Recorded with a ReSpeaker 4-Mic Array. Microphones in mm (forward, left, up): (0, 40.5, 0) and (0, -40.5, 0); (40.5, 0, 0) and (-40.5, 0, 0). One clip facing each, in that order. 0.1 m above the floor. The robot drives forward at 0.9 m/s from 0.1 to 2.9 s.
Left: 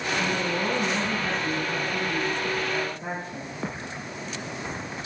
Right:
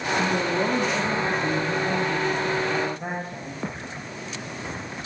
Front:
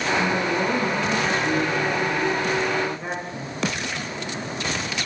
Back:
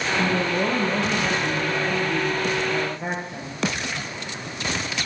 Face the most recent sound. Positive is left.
turn(degrees=-135)